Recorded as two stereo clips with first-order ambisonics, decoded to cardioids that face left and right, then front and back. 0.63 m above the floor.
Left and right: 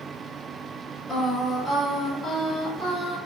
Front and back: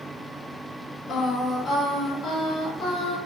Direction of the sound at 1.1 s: 30° left.